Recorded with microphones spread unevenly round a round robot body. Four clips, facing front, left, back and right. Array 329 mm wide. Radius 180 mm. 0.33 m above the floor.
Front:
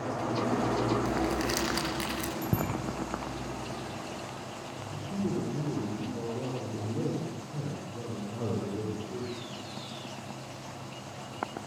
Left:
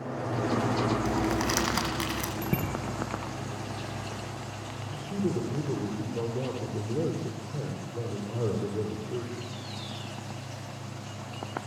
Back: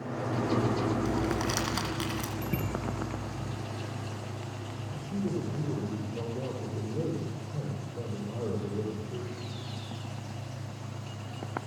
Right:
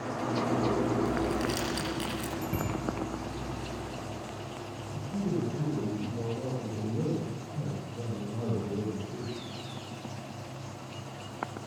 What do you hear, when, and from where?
1.1 s crumpling: 85° left, 9.5 m
2.4 s a bicycle bell: 35° left, 6 m
4.9 s a man speaking: 75° left, 10 m